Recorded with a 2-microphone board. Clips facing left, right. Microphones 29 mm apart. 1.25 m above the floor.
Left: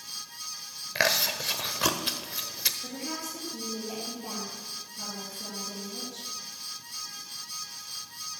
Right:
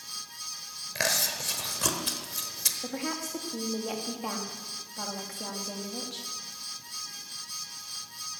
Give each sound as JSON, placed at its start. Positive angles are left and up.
{"t": 0.9, "sound": "chewing", "side_deg": 20, "distance_m": 1.0}
{"t": 2.8, "sound": "a woman speaking", "side_deg": -80, "distance_m": 2.5}